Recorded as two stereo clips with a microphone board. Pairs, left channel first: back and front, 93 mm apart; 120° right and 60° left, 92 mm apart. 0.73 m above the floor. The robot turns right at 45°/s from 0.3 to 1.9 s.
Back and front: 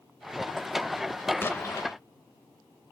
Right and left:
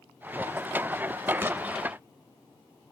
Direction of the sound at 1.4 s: 120° left.